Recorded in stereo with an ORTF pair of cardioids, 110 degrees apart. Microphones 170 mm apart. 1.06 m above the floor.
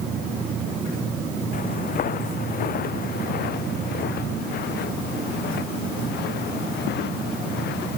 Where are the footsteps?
55° left; by 8.0 s 80° left.